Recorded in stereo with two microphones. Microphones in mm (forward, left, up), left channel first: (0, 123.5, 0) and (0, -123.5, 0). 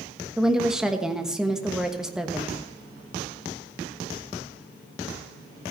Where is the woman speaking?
5° right (ahead or behind), 1.2 m.